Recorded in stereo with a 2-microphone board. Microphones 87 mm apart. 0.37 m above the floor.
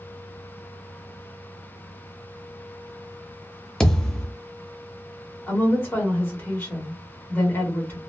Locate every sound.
3.8 s a thud: 5° left (ahead or behind), 0.5 m
5.5 s a woman speaking: 25° left (ahead or behind), 1.0 m